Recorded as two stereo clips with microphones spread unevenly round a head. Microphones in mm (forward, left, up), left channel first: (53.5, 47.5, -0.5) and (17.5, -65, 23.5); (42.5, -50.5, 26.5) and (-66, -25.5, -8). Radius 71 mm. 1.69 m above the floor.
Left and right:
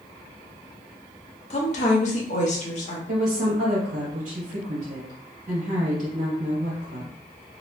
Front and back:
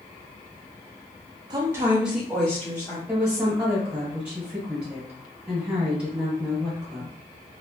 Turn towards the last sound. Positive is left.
turn(degrees=-110)